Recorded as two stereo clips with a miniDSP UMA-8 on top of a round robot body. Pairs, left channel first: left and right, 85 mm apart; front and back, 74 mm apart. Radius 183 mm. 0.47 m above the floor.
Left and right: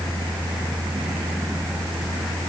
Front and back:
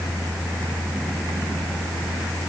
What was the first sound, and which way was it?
Only background noise.